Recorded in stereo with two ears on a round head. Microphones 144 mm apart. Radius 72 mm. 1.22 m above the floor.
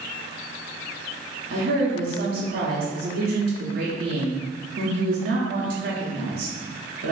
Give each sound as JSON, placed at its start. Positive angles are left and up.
{"t": 1.5, "sound": "a woman speaking", "side_deg": -55, "distance_m": 0.8}